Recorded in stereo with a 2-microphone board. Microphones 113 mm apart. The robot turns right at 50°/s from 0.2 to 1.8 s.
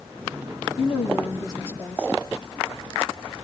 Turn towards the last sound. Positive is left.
turn(degrees=160)